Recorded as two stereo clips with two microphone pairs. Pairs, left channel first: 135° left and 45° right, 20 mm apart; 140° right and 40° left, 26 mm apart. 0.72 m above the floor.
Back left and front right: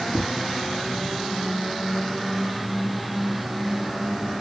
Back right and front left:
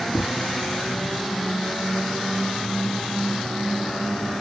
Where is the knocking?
140° right.